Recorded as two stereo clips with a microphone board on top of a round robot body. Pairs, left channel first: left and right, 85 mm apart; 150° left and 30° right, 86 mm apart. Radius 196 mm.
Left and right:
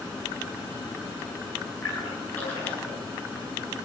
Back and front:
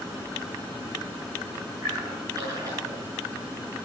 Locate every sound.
1.8 s a splash: 20° left, 9.5 m